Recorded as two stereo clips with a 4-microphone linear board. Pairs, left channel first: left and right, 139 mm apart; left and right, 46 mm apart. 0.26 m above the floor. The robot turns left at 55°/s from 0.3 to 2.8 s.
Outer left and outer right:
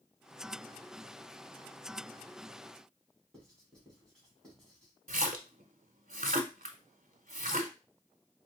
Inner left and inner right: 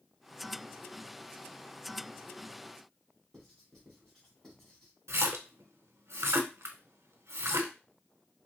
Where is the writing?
5° left (ahead or behind), 2.5 m.